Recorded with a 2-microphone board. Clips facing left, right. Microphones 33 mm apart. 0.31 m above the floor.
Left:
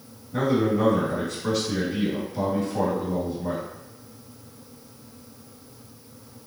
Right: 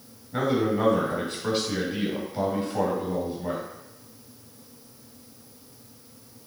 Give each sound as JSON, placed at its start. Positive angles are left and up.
{"t": 0.3, "sound": "a man speaking", "side_deg": -40, "distance_m": 1.7}